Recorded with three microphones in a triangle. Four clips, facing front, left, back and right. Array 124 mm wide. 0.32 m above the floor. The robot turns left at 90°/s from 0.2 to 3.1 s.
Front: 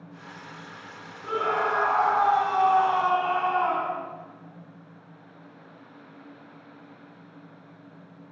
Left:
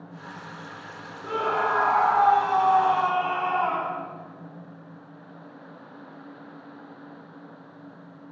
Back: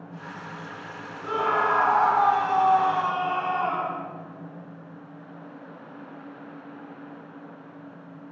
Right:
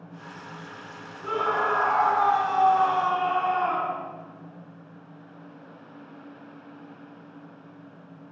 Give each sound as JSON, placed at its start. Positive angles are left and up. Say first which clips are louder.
{"t": 1.2, "sound": "a scream", "louder": "even, back 2 dB", "azimuth_deg": -140, "distance_m": 2.5}